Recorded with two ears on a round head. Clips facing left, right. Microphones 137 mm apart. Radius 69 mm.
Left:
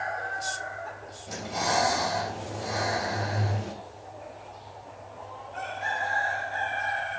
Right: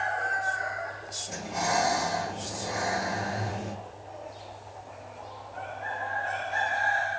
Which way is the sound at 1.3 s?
80° left.